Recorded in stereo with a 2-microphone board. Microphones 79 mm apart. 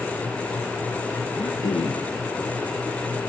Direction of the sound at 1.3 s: 80° left.